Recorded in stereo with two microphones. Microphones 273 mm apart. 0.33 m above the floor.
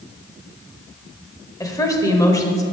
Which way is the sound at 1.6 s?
15° left (ahead or behind).